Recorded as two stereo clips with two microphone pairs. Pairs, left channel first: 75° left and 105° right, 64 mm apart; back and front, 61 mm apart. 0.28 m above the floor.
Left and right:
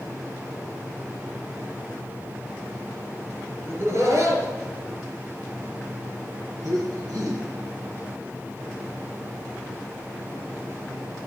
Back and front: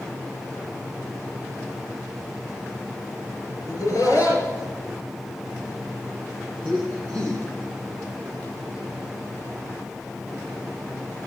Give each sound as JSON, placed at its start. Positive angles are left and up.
{"t": 3.6, "sound": "laughter", "azimuth_deg": -150, "distance_m": 4.5}